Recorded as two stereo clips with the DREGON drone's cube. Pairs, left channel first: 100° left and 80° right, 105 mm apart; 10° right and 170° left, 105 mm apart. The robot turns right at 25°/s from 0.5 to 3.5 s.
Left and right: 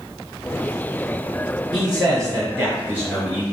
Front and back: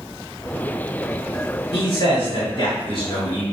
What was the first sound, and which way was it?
A man speaking, 35° right.